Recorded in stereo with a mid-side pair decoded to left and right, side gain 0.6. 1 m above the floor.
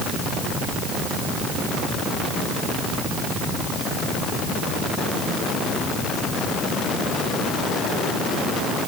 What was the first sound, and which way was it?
Only background noise.